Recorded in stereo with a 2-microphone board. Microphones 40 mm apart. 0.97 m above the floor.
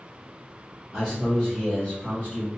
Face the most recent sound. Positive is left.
turn(degrees=45)  # may be behind; listen again after turning